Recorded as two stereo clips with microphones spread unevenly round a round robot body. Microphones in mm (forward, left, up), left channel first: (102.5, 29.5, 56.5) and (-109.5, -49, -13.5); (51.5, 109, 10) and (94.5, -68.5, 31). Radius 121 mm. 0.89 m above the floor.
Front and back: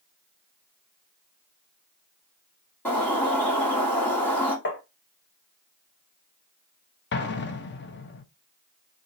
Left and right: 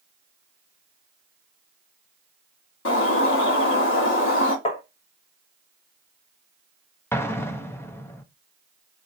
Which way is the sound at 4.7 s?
65° left.